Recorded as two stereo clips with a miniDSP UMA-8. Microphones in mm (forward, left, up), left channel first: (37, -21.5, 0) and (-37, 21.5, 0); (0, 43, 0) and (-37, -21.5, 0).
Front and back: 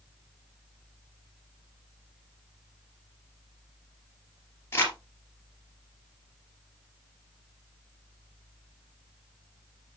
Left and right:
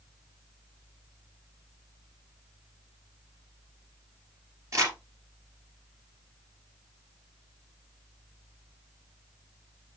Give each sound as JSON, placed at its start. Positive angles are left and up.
{"t": 4.7, "sound": "crumpling", "azimuth_deg": -85, "distance_m": 3.0}